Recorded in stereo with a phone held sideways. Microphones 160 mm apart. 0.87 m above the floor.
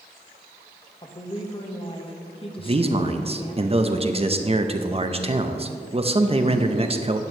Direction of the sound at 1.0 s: 35° left (ahead or behind).